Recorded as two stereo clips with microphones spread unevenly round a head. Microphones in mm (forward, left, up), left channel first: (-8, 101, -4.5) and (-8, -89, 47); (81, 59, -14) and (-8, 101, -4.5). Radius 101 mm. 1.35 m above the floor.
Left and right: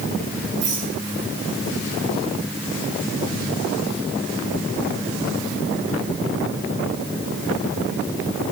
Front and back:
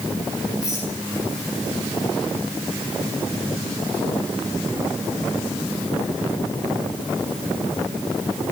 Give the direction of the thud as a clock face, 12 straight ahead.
No thud in this recording.